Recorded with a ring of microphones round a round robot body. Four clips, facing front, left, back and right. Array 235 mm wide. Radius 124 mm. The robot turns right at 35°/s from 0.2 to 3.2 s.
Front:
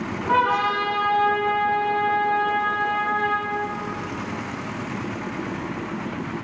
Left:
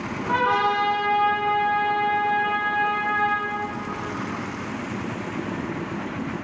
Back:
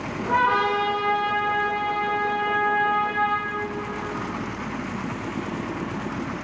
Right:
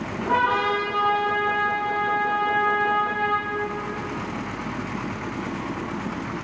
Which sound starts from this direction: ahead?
A trumpet, at 0.3 s.